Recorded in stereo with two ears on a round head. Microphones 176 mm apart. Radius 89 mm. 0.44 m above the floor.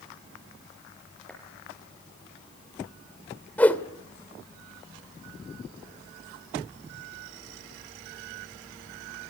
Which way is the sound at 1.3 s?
5° left (ahead or behind).